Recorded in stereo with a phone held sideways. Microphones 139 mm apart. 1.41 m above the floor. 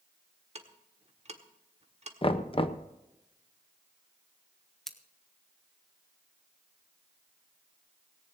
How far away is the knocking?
About 0.7 m.